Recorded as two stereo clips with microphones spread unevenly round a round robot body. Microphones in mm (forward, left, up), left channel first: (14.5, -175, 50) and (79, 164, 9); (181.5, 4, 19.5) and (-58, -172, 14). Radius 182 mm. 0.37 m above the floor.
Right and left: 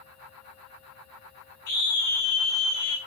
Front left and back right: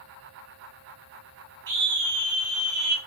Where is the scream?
140° right, 5 m.